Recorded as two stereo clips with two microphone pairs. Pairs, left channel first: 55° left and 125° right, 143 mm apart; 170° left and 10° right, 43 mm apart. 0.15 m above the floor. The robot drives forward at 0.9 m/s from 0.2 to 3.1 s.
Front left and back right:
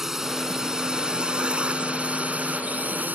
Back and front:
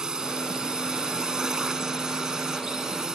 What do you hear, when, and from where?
0.0 s a drone: 45° right; by 3.1 s 65° right